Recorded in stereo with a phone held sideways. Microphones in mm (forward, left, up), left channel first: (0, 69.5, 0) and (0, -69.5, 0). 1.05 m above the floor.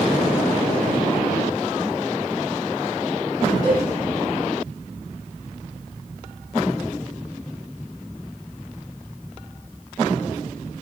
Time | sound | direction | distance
3.6 | a cowbell | 60° right (ahead or behind) | 1.7 m